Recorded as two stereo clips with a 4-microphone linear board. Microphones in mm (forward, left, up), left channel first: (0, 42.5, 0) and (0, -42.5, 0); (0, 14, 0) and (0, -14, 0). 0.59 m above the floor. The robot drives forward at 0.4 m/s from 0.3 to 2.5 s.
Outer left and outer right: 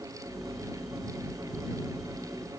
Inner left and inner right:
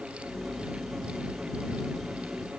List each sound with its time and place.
Only background noise.